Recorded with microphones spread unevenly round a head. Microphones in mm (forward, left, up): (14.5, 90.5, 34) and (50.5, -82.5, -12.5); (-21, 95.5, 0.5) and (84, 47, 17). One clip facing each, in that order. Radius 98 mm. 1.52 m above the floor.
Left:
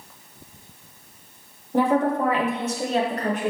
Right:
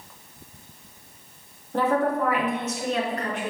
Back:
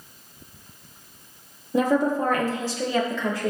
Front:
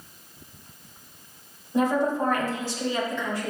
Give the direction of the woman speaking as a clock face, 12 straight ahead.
6 o'clock.